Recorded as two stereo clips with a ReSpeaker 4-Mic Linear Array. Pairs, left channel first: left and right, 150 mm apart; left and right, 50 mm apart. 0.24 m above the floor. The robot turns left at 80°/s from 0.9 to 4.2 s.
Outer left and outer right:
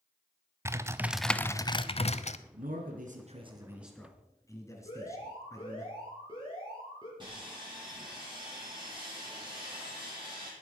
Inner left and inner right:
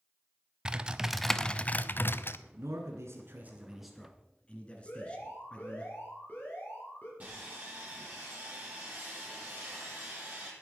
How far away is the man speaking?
About 2.5 m.